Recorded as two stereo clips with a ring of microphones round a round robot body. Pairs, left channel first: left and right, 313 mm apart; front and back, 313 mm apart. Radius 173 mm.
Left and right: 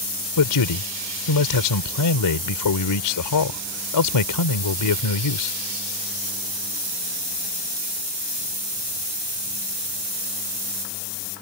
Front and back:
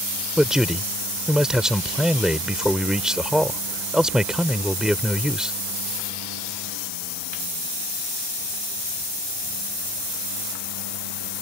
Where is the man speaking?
90° left.